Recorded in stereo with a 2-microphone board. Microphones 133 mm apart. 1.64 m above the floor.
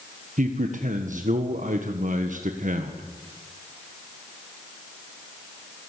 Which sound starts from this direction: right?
A man speaking, at 0.4 s.